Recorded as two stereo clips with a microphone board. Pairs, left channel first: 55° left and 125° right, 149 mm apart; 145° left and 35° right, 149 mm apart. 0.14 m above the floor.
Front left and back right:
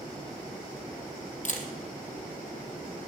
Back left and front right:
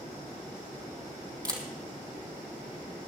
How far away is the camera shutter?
About 2.5 m.